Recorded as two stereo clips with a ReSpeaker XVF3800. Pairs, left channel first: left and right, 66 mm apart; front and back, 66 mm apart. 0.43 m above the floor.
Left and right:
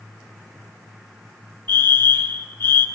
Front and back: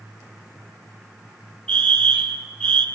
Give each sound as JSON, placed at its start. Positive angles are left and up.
{"t": 1.7, "sound": "a fire alarm", "azimuth_deg": 50, "distance_m": 2.0}